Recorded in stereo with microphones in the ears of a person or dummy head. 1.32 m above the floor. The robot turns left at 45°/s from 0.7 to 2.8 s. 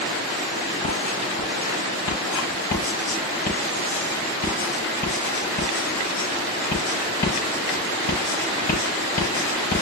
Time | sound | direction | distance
0.8 | writing | 45° left (ahead or behind) | 8 m